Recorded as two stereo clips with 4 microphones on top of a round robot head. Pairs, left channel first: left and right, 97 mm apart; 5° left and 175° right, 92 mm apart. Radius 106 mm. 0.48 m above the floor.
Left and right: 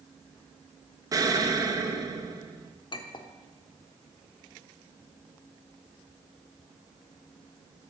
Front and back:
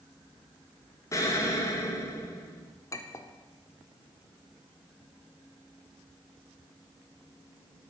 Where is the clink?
60° left, 0.7 m.